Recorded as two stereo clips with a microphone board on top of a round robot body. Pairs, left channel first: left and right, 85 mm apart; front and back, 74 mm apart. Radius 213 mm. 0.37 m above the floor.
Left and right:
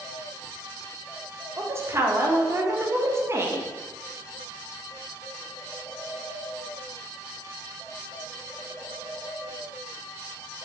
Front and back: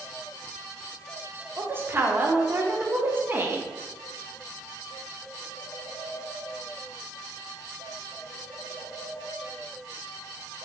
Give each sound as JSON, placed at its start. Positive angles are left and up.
{"t": 1.6, "sound": "a woman speaking", "azimuth_deg": -135, "distance_m": 1.1}